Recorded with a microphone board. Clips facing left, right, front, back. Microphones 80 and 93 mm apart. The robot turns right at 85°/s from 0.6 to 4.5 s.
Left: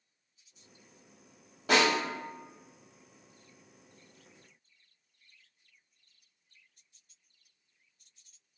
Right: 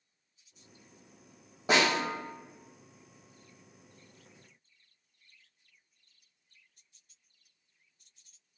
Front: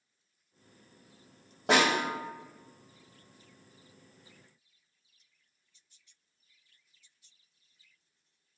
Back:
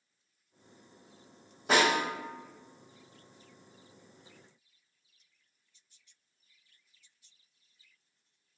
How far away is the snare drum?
About 1.9 m.